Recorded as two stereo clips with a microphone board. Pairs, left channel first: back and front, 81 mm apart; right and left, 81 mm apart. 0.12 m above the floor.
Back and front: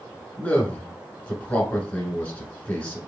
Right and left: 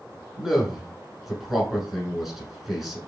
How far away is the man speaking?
About 1.3 m.